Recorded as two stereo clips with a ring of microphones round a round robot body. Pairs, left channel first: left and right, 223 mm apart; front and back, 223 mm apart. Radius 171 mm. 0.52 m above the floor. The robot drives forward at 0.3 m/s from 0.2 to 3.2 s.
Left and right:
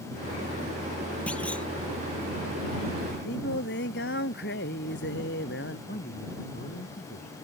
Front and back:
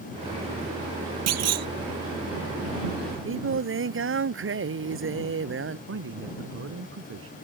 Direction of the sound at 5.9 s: 150° left.